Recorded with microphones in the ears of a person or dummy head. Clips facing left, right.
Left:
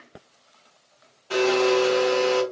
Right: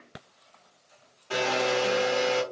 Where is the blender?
Centre (ahead or behind), 2 m.